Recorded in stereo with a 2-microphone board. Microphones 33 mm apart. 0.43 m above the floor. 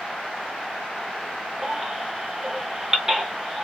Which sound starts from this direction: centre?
A baby crying, at 1.6 s.